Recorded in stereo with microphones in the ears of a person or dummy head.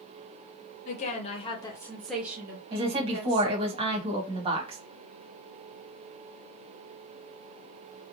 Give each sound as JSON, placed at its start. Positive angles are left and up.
{"t": 0.8, "sound": "a woman speaking", "side_deg": 45, "distance_m": 0.9}
{"t": 2.7, "sound": "a woman speaking", "side_deg": -25, "distance_m": 1.2}